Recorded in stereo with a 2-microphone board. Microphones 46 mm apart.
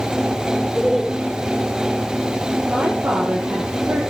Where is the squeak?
No squeak in this recording.